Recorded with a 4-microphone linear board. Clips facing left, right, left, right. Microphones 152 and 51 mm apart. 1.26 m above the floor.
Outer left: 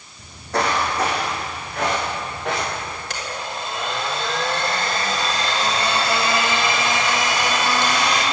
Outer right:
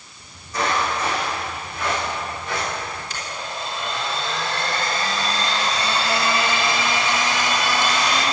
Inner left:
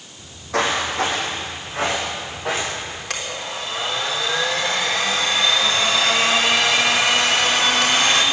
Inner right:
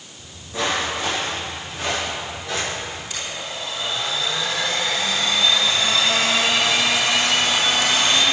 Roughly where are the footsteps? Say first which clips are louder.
Outer left 3 dB, inner left 4 dB; left.